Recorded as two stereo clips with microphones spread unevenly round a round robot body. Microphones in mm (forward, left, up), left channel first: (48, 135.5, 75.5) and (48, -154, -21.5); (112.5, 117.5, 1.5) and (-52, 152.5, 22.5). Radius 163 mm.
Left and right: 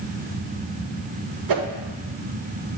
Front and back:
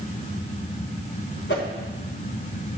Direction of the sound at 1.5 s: 70° right.